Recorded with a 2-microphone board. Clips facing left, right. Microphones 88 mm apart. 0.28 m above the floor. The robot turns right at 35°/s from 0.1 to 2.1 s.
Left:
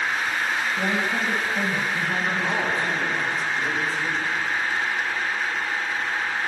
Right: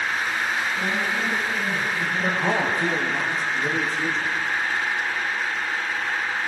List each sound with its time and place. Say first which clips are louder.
0.8 s a woman speaking: left 1 dB; 35° left, 6.5 m; by 2.9 s 85° left, 6.5 m
2.2 s a man speaking: right 2 dB; 65° right (ahead or behind), 6 m